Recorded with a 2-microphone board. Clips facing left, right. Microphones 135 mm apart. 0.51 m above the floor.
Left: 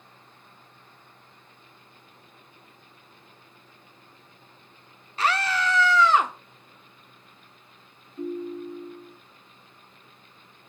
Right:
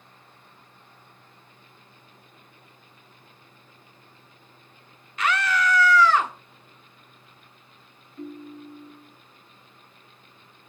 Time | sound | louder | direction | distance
5.2 | a scream | right 1 dB | 35° left (ahead or behind) | 1.2 m
8.2 | a ringtone | left 7 dB | 15° left (ahead or behind) | 3 m